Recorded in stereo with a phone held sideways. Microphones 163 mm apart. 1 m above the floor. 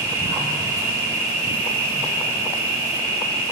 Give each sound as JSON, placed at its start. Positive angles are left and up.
{"t": 0.0, "sound": "an insect", "side_deg": -20, "distance_m": 1.6}